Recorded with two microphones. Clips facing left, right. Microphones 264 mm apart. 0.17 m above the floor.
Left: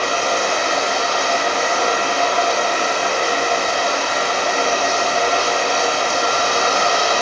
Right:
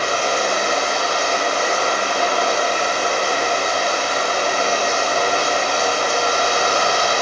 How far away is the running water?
About 2 m.